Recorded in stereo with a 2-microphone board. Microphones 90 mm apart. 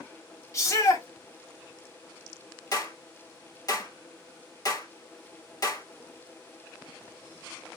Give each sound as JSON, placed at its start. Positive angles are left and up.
{"t": 0.5, "sound": "a shout", "side_deg": 35, "distance_m": 1.5}
{"t": 2.7, "sound": "a clap", "side_deg": 40, "distance_m": 1.6}